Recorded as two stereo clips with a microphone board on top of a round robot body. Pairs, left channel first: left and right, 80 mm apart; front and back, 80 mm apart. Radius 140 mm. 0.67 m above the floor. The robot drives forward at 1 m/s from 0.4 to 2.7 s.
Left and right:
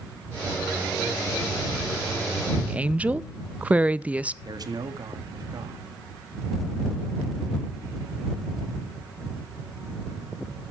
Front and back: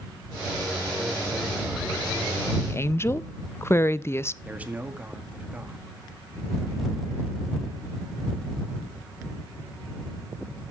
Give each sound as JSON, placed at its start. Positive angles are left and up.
{"t": 2.6, "sound": "a woman speaking", "azimuth_deg": -20, "distance_m": 0.6}
{"t": 4.5, "sound": "a man speaking", "azimuth_deg": -110, "distance_m": 1.8}